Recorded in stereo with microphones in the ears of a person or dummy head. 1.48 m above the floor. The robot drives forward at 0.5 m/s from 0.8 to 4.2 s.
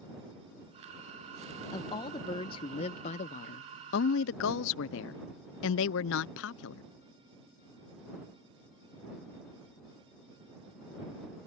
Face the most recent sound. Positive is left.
turn(degrees=65)  # may be behind; listen again after turning